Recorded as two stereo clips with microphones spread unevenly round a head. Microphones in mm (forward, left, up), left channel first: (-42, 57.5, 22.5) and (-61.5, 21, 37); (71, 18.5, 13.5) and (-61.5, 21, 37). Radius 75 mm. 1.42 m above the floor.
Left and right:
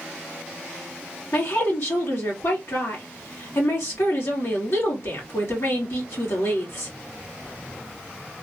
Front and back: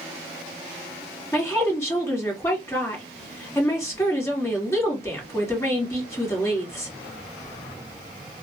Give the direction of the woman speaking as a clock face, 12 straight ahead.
10 o'clock.